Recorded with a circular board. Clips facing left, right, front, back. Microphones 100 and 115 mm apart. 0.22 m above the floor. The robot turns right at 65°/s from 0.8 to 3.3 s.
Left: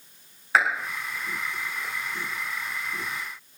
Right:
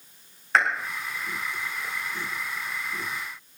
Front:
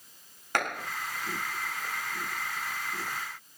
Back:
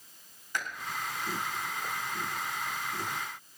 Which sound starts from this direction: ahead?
A clap, at 0.6 s.